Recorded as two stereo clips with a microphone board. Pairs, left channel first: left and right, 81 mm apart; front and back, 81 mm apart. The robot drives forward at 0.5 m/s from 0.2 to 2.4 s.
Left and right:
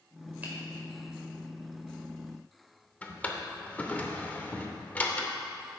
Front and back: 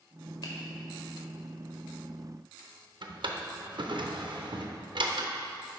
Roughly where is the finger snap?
Ahead.